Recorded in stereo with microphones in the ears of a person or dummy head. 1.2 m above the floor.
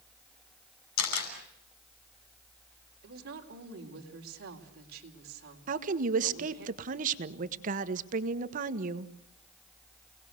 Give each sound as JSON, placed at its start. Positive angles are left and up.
{"t": 1.0, "sound": "a camera shutter", "side_deg": 85, "distance_m": 6.0}
{"t": 3.0, "sound": "a woman speaking", "side_deg": -60, "distance_m": 3.5}
{"t": 5.7, "sound": "a woman speaking", "side_deg": -50, "distance_m": 1.4}